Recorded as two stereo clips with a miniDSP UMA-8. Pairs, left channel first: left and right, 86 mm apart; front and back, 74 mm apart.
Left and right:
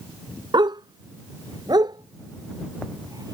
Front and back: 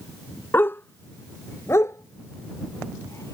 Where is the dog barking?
60° right; by 3.4 s 45° right.